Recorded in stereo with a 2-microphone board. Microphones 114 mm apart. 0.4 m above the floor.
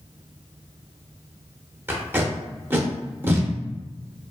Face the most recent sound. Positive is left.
turn(degrees=-20)  # may be behind; listen again after turning